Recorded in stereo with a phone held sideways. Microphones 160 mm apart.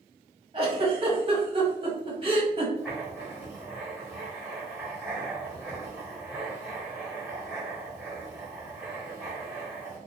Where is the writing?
10° right (ahead or behind), 1.4 m.